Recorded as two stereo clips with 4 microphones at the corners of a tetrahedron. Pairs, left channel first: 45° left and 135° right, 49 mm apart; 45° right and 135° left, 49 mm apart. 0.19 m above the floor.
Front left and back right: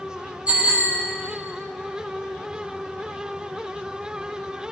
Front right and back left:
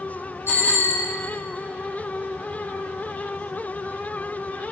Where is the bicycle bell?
70° right, 5.5 m.